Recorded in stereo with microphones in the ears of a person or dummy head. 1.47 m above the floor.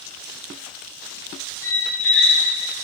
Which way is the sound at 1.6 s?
15° left (ahead or behind).